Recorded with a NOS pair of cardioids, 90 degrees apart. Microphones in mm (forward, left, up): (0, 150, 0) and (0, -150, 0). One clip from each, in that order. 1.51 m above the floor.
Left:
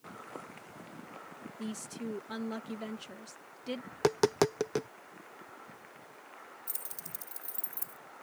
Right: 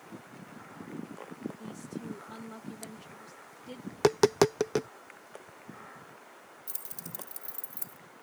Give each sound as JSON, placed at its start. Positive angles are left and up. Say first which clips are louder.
{"t": 1.6, "sound": "a woman speaking", "louder": "left 1 dB", "azimuth_deg": 60}
{"t": 3.9, "sound": "tapping", "louder": "right 4 dB", "azimuth_deg": -20}
{"t": 6.7, "sound": "keys jangling", "louder": "even", "azimuth_deg": -5}